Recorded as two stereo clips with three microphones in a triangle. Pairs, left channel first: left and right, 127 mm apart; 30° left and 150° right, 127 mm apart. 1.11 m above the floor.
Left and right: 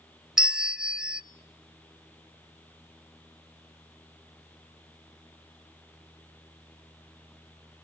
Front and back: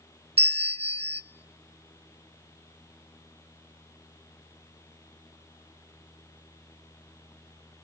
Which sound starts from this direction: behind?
A bell, at 0.4 s.